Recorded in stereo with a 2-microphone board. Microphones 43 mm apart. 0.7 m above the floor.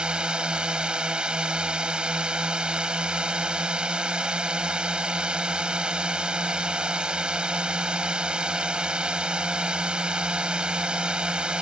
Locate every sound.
0.0 s a drone: 25° right (ahead or behind)